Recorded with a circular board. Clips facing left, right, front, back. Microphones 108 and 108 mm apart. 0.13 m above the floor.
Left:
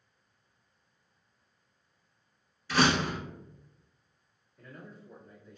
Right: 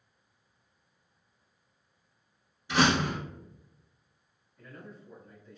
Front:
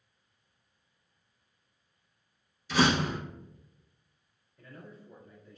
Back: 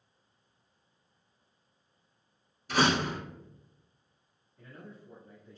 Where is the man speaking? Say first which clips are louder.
Right 1 dB, even; straight behind, 1.2 m.